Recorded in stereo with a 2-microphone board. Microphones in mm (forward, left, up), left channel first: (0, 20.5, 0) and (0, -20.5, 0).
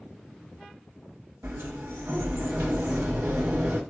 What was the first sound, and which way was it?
A sliding door, 70° right (ahead or behind).